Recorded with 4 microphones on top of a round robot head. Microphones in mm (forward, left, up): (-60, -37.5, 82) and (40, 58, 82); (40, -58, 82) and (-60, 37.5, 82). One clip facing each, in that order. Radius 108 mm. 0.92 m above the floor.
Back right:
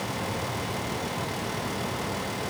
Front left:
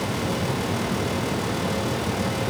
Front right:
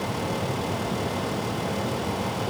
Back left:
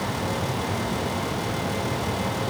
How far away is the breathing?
I don't hear breathing.